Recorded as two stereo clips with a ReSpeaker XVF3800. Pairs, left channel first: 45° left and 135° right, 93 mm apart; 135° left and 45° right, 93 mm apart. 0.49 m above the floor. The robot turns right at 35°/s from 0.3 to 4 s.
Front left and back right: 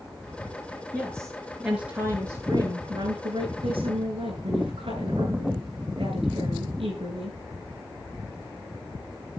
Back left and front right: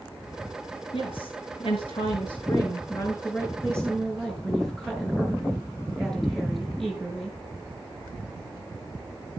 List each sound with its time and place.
0.9 s a woman speaking: 115° left, 7.5 m; by 7.4 s 135° right, 7.5 m